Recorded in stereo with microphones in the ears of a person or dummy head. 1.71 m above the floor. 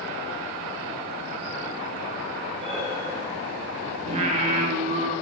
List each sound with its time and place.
2.6 s breathing: 35° right (ahead or behind), 1.8 m
4.0 s singing: 45° right (ahead or behind), 1.5 m